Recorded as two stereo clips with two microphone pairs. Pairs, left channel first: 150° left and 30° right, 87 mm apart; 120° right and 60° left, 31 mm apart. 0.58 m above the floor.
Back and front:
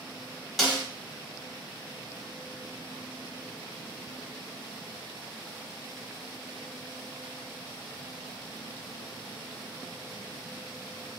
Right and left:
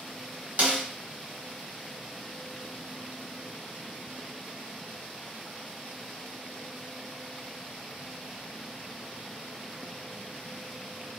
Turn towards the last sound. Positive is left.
turn(degrees=60)